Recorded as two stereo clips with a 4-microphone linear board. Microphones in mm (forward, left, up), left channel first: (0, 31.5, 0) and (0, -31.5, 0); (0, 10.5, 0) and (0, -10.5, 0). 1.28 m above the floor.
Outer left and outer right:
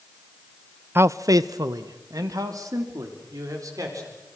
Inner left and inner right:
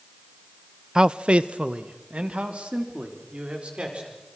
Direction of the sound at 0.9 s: 35° right (ahead or behind).